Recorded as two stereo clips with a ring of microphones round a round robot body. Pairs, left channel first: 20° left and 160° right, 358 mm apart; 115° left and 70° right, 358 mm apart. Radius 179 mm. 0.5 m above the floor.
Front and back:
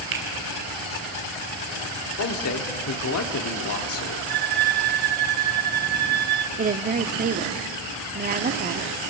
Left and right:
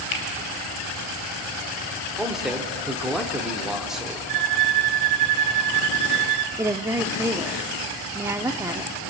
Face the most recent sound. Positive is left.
turn(degrees=-140)